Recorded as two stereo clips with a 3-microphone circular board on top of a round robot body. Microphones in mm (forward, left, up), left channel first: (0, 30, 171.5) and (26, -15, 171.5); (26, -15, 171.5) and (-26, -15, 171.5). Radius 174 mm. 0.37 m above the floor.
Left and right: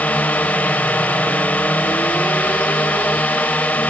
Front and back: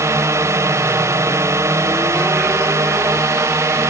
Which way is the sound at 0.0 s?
175° left.